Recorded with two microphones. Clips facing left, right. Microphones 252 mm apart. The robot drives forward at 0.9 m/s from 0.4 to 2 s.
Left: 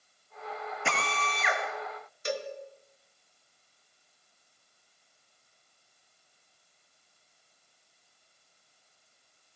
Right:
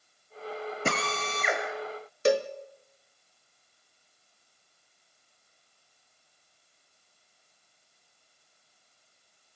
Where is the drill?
45° right (ahead or behind), 3.5 m; by 1.6 s 50° right (ahead or behind), 3 m.